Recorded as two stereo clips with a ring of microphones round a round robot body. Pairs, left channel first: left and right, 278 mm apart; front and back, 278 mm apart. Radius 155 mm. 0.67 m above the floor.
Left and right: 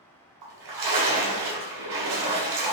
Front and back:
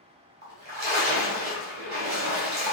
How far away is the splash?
About 1.2 m.